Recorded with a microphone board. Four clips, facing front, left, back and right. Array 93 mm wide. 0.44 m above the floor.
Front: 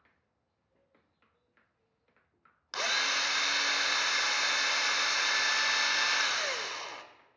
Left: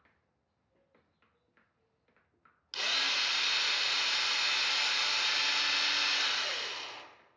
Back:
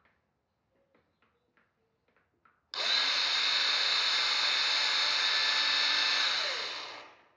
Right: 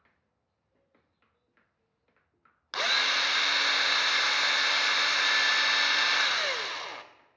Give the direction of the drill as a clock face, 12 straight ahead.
2 o'clock.